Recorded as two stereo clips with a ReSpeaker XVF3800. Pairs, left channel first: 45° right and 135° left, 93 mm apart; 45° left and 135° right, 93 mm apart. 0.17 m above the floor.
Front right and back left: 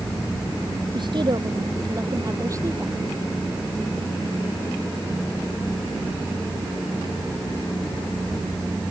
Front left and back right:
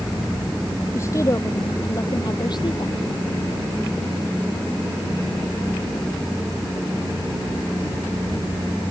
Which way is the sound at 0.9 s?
105° left.